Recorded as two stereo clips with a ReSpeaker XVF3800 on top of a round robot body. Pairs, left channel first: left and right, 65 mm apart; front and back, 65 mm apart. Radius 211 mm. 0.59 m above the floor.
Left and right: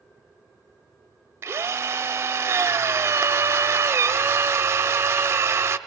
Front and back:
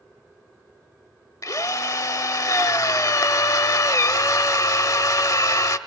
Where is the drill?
35° right, 0.7 m.